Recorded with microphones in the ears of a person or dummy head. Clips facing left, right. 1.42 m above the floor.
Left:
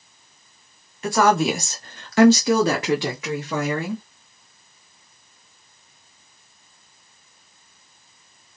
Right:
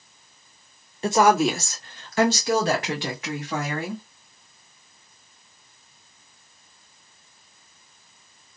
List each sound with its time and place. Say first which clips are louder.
1.0 s a woman speaking: even; 20° right (ahead or behind), 0.6 m; by 4.0 s 75° left (ahead or behind), 1.6 m